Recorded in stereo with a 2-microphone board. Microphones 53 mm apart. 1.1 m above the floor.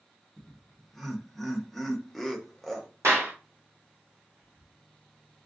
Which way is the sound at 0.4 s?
5° left (ahead or behind).